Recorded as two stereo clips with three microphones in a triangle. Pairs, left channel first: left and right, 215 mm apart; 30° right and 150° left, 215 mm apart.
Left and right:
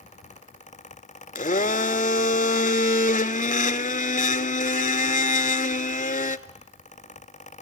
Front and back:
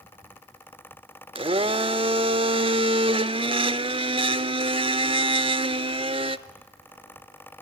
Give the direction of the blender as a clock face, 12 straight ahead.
9 o'clock.